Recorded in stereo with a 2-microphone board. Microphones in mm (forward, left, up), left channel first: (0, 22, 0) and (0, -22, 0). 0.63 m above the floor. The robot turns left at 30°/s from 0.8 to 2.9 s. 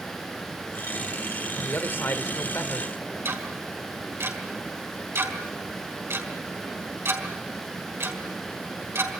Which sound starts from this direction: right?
Ticking, at 3.2 s.